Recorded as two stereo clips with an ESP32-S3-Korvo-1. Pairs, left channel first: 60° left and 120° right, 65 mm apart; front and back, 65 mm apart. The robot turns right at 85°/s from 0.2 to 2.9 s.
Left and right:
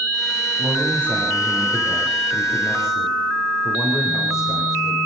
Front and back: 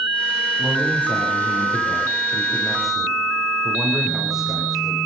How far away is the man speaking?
About 10 m.